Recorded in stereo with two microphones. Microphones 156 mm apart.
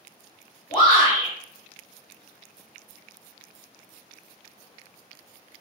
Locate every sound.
0.7 s a shout: 30° left (ahead or behind), 1.6 m